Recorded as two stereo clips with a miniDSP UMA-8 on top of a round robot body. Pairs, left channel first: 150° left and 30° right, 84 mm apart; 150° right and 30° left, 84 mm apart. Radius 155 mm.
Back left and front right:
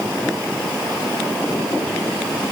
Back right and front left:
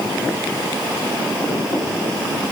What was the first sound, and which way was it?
Only background noise.